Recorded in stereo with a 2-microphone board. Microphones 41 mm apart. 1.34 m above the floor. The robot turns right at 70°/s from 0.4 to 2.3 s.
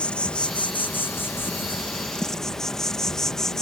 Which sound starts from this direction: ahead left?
An insect, at 0.0 s.